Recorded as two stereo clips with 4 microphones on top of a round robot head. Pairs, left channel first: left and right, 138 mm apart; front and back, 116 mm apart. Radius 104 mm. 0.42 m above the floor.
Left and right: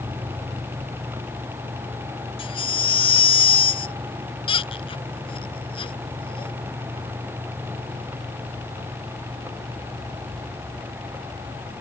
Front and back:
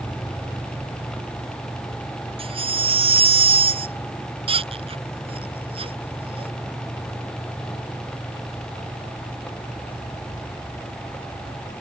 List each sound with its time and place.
2.4 s a baby crying: 140° left